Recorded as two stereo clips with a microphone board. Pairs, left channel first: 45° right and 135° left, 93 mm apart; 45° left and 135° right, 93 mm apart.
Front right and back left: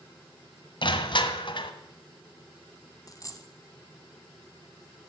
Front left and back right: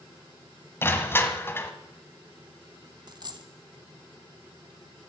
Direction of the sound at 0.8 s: 20° right.